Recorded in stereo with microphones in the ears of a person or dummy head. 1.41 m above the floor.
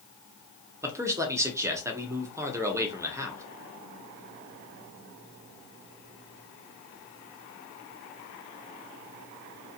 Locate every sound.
0.8 s a man speaking: 15° right (ahead or behind), 0.8 m